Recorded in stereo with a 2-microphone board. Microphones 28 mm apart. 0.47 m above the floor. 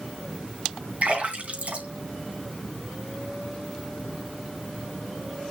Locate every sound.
1.0 s a splash: 55° right (ahead or behind), 3 m